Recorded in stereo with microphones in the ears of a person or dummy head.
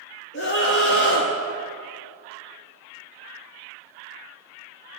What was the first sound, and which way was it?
A scream, 55° left (ahead or behind).